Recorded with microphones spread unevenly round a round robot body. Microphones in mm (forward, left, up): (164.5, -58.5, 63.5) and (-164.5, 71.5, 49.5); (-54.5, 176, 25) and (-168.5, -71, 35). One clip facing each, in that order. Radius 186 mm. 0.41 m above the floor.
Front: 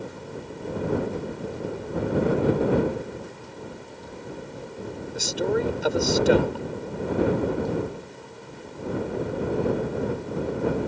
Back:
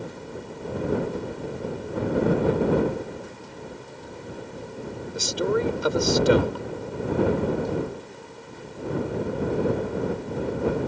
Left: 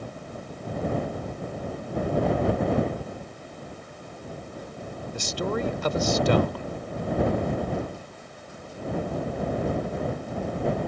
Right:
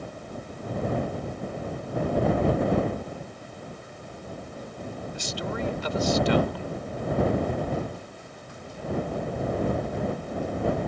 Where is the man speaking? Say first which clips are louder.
Back 1 dB, left 5 dB; 80° left.